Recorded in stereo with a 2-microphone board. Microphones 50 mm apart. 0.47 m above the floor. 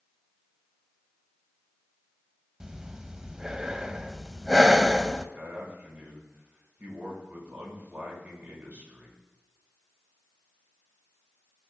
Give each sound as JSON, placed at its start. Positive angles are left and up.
{"t": 2.6, "sound": "breathing", "side_deg": -15, "distance_m": 0.5}
{"t": 5.3, "sound": "a man speaking", "side_deg": -35, "distance_m": 4.5}